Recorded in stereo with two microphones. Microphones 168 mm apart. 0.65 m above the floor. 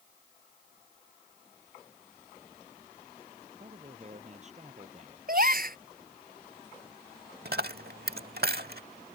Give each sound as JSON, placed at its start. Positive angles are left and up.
{"t": 3.6, "sound": "a man speaking", "side_deg": -45}
{"t": 5.3, "sound": "a gasp", "side_deg": -60}
{"t": 7.5, "sound": "a dropped coin", "side_deg": -70}